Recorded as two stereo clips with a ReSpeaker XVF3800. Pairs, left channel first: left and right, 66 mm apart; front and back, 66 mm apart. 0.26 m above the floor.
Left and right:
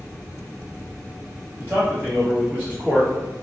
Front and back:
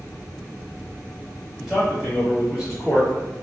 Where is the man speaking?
100° right, 1.0 m.